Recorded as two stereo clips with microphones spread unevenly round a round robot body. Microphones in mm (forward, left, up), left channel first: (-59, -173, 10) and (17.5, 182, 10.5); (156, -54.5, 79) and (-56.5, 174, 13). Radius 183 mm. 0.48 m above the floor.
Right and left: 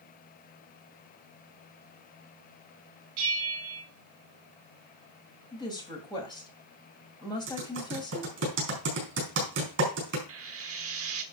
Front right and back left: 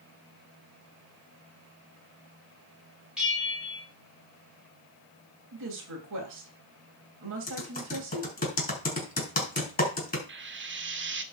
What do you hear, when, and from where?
3.2 s a bell: 45° left, 3 m
5.5 s a woman speaking: straight behind, 2.5 m
7.5 s typing on a keyboard: 20° left, 4.5 m
10.3 s frying: 115° left, 1.2 m